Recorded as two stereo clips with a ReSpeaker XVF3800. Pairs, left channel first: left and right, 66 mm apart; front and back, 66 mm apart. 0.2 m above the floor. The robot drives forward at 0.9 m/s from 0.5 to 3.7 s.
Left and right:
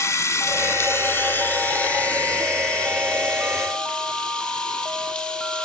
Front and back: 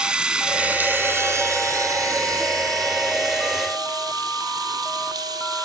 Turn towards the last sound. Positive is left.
turn(degrees=165)